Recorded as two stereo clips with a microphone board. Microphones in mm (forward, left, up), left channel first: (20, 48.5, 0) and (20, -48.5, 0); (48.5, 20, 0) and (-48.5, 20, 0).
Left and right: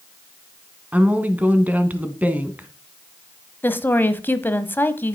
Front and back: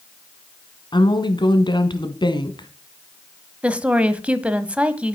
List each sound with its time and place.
0.9 s a woman speaking: 20° right, 1.6 m
3.6 s a woman speaking: 115° left, 1.0 m